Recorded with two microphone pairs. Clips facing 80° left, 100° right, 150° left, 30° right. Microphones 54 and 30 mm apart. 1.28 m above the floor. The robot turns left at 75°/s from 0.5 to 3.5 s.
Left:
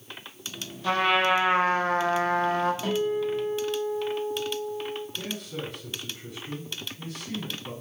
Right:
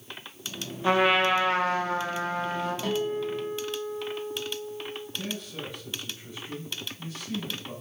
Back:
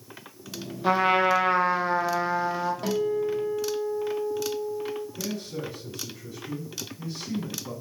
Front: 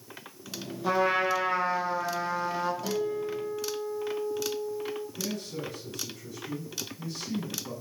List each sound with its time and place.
0.8 s a trumpet: 165° right, 1.0 m; by 2.7 s 55° left, 1.0 m
2.8 s a guitar: 165° left, 1.2 m; by 5.1 s 115° left, 1.2 m
5.2 s a man speaking: 75° left, 3 m